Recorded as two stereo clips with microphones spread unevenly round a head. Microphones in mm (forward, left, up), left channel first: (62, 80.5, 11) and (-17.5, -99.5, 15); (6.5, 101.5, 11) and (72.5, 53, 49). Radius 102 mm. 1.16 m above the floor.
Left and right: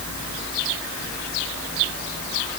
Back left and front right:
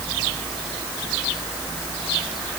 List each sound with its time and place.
Only background noise.